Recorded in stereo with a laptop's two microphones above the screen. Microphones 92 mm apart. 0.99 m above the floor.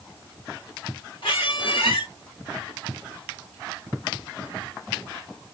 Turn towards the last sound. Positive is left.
turn(degrees=70)  # may be behind; listen again after turning